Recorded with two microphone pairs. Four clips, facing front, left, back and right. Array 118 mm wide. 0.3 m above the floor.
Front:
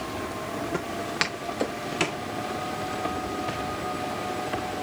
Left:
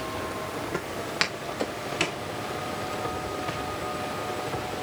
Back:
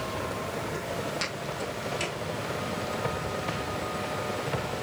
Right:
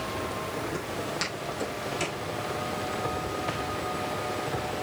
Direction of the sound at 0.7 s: 50° left.